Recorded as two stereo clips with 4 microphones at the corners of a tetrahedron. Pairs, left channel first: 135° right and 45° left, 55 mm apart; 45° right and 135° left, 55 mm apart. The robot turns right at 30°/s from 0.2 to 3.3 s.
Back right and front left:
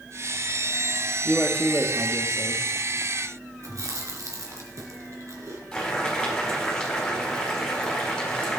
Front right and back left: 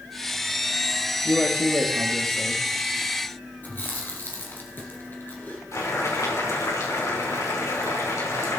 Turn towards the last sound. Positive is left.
turn(degrees=-55)